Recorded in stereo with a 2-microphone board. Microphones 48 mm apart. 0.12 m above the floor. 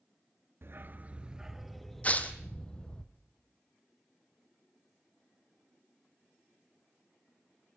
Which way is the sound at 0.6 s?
55° right (ahead or behind).